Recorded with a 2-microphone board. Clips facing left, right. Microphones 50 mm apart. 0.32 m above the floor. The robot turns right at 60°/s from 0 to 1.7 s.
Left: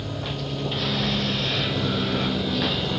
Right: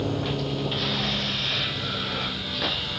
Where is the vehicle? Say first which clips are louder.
Right 4 dB; 45° right; by 3.0 s 55° left.